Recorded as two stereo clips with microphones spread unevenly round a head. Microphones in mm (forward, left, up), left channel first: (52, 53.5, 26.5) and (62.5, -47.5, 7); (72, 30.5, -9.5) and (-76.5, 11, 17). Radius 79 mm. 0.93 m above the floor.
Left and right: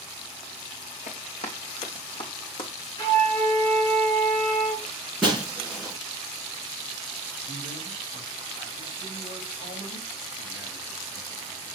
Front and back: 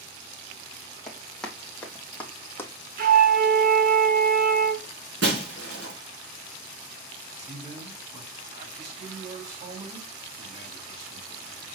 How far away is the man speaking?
About 5 m.